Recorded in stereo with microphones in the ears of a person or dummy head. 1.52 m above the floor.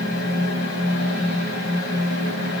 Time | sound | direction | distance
0.0 | a fan | 70° left (ahead or behind) | 1.2 m